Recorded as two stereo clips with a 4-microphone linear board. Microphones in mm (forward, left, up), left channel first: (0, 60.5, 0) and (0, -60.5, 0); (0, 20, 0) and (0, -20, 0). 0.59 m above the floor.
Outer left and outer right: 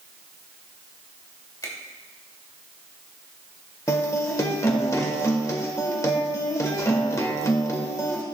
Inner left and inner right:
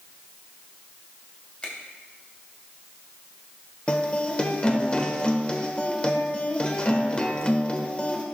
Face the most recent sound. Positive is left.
turn(degrees=25)  # may be behind; listen again after turning